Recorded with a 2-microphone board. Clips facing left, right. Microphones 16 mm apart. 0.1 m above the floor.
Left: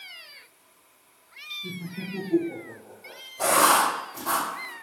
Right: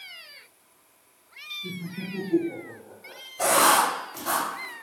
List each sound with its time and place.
1.6 s laughter: 30° left (ahead or behind), 1.2 m; by 3.2 s 5° right (ahead or behind), 1.6 m
3.4 s writing: 40° right (ahead or behind), 1.4 m